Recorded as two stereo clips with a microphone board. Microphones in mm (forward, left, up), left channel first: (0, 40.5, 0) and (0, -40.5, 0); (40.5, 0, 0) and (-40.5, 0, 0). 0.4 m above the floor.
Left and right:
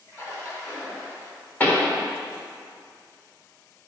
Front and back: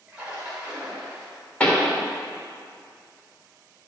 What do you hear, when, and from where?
0.1 s a splash: 110° left, 1.7 m
1.6 s a pop: 55° left, 1.1 m